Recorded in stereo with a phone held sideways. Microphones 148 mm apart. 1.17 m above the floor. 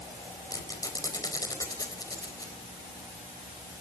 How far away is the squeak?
About 4 m.